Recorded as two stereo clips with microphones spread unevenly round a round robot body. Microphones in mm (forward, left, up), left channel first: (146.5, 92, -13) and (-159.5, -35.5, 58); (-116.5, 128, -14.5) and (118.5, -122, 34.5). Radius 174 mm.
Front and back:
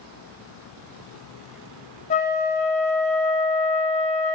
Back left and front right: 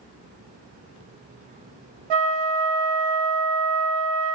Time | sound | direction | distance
2.1 | a flute | 40° right | 1.0 m